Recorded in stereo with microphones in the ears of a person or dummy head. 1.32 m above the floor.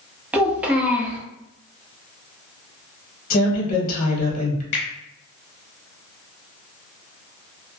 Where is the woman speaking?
35° left (ahead or behind), 0.9 m.